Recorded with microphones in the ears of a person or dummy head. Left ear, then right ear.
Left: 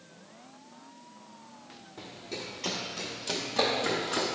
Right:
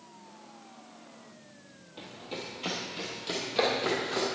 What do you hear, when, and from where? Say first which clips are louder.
2.0 s running footsteps: even; 25° right (ahead or behind), 1.9 m; by 4.2 s 10° right (ahead or behind), 2.5 m